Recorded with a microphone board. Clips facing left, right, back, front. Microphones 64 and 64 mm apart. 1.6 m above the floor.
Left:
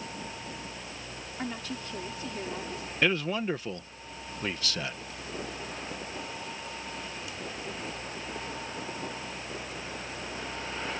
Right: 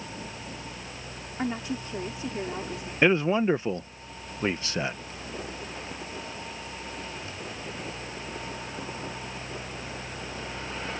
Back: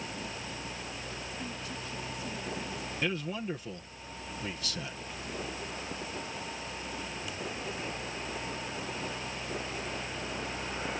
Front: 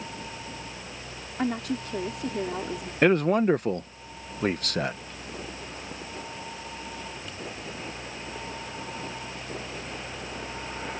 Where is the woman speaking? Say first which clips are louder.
Right 6 dB, front 11 dB; 20° right.